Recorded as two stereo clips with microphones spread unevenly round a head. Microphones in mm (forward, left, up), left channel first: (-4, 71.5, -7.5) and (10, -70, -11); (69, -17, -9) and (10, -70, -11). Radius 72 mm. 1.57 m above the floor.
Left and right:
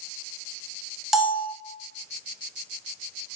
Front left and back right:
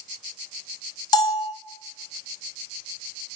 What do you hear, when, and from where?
1.1 s a bell: 5° left, 0.8 m